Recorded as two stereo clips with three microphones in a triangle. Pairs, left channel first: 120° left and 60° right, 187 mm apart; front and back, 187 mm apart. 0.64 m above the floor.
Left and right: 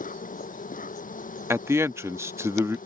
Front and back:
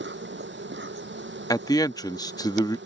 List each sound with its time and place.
0.0 s an insect: 165° left
1.5 s a man speaking: 15° right